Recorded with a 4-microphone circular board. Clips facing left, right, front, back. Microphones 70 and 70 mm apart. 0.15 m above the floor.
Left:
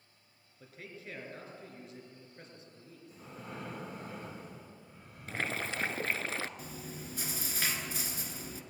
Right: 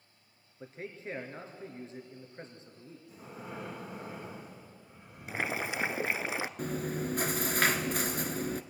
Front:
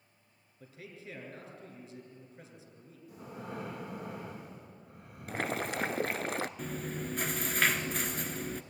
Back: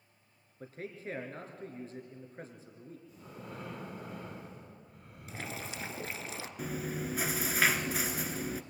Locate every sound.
0.6 s a man speaking: 145° right, 3 m
3.1 s breathing: 10° right, 9 m
5.3 s boiling: 15° right, 0.7 m
6.6 s chewing: 95° right, 1.0 m